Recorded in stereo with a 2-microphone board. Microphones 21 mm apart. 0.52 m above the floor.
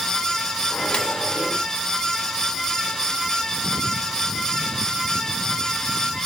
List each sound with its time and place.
0.7 s a microwave: 55° left (ahead or behind), 1.5 m